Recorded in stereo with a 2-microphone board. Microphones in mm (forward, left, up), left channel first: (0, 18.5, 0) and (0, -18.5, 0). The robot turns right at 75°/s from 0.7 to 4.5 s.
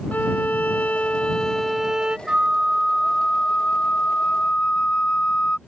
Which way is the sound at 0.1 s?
100° left.